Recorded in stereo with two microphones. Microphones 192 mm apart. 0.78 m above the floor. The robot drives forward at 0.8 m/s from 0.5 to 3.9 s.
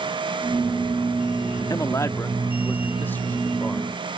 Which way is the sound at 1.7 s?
20° left (ahead or behind).